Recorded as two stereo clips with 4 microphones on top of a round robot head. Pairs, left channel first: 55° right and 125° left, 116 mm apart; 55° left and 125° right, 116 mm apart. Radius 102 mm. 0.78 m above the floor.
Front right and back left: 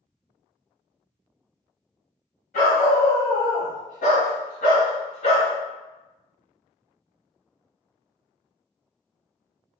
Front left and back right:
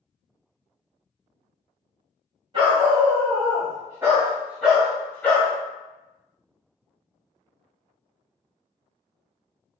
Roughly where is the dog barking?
Right.